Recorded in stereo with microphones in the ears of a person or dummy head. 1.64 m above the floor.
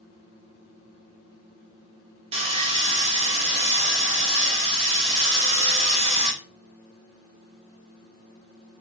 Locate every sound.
2.3 s sawing: 30° right (ahead or behind), 0.7 m